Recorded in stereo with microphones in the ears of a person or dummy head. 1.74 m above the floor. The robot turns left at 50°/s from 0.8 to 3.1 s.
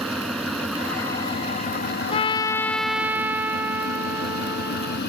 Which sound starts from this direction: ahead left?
A trumpet, at 2.1 s.